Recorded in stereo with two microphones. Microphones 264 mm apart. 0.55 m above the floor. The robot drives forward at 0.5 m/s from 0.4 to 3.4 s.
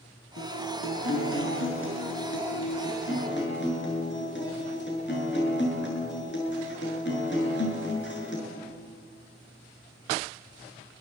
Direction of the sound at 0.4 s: 55° left (ahead or behind).